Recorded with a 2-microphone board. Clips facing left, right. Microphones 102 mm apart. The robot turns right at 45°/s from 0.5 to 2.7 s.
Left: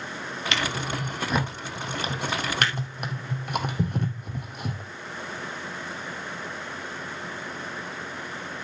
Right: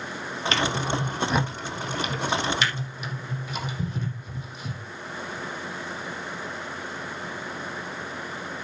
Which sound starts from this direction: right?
A drawer, at 0.5 s.